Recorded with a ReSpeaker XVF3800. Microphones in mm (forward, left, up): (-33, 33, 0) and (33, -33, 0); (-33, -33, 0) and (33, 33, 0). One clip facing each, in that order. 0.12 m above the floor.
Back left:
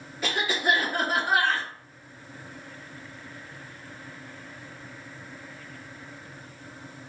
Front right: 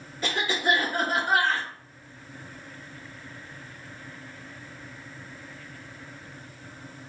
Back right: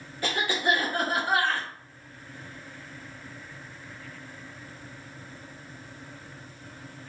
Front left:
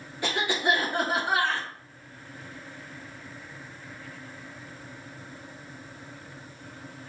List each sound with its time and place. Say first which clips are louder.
0.2 s a cough: even, even; 60° left, 1.8 m